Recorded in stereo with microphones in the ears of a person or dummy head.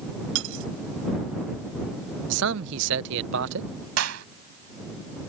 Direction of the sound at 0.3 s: 80° right.